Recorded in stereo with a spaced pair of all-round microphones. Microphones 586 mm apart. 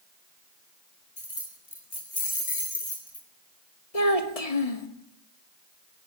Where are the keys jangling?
70° left (ahead or behind), 4.5 m.